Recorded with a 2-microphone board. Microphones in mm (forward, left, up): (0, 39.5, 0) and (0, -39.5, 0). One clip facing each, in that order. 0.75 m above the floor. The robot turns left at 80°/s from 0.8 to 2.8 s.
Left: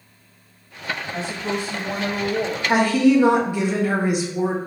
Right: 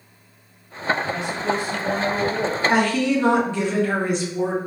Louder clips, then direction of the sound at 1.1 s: Right 2 dB; 85° left.